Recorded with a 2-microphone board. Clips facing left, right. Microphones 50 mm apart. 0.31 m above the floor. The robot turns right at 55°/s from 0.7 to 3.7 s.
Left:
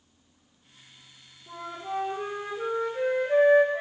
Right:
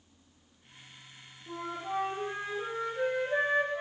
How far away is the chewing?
I don't hear chewing.